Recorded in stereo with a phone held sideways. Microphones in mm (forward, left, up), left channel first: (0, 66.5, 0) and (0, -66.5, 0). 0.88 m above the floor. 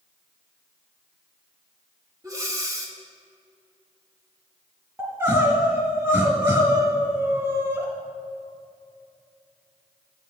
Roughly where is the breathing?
Right.